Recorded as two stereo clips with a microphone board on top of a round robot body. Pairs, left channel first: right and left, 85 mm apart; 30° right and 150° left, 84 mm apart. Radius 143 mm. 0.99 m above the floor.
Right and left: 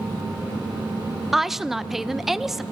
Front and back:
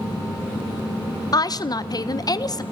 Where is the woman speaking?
5° left, 1.0 m.